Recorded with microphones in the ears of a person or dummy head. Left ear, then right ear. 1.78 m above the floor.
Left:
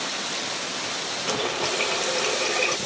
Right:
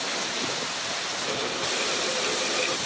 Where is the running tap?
30° left (ahead or behind).